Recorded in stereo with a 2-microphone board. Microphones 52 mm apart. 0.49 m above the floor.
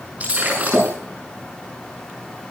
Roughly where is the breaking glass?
Right.